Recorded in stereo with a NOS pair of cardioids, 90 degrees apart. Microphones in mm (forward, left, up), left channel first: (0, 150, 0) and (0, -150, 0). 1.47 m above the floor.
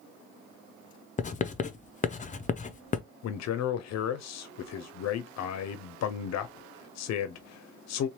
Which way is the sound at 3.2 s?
60° left.